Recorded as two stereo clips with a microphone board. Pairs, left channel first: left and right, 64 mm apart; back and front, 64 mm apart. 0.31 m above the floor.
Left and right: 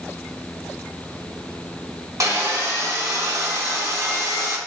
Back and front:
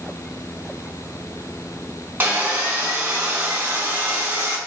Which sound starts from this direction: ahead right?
Sawing, at 2.2 s.